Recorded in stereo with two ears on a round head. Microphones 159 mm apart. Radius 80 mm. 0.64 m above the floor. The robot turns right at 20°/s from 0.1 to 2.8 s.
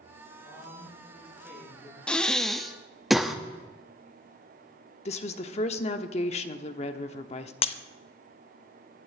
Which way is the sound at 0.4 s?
25° right.